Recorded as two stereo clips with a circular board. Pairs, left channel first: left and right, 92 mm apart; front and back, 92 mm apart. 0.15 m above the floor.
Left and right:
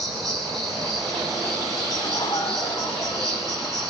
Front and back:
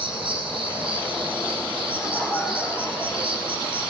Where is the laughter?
65° left, 2.5 m.